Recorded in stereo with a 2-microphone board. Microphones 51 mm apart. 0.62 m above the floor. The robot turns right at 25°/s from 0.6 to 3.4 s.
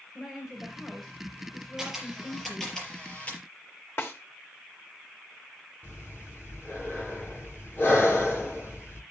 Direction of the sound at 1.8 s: 10° right.